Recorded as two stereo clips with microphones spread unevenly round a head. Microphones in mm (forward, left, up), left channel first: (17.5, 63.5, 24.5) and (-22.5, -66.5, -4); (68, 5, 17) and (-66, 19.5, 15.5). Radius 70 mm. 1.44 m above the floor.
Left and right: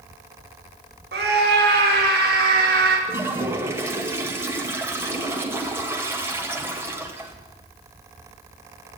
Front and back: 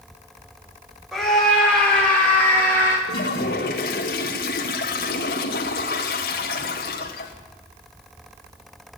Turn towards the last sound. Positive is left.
turn(degrees=-35)